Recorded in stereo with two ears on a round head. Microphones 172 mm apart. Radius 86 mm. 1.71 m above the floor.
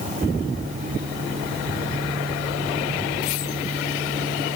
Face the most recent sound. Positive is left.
No sound to turn to.